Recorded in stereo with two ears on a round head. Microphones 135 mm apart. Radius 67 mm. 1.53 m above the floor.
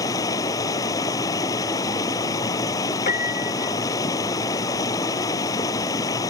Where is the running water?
25° left (ahead or behind).